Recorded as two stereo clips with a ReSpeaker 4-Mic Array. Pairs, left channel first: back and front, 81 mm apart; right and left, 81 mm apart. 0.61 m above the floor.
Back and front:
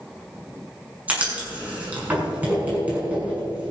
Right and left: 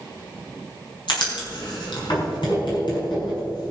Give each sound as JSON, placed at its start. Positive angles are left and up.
{"t": 1.1, "sound": "writing", "azimuth_deg": -70, "distance_m": 6.0}